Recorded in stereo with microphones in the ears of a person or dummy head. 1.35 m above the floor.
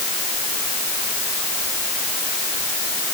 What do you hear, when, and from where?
Only background noise.